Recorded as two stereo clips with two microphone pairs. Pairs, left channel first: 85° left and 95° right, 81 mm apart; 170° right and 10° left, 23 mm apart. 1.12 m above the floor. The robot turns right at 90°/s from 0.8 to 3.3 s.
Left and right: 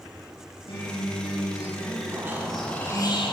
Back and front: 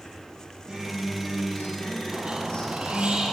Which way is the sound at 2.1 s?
40° right.